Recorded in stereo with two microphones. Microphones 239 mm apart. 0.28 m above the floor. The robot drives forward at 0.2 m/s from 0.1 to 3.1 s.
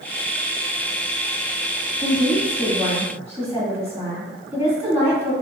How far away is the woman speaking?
About 1.5 m.